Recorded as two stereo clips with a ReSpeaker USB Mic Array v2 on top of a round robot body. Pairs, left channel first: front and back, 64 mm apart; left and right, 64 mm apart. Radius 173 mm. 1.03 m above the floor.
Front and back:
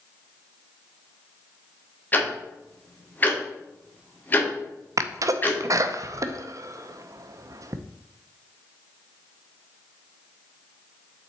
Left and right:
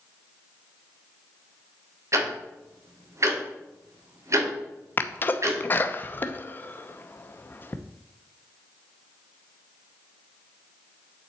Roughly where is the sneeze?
Behind left.